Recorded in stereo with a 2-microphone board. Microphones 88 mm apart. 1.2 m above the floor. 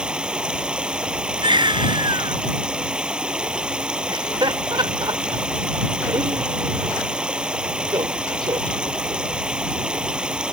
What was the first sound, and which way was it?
Running water, 10° right (ahead or behind).